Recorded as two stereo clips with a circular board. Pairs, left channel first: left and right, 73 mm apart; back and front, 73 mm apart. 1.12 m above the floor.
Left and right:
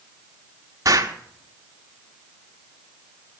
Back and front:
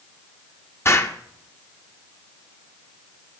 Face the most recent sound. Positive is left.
turn(degrees=-130)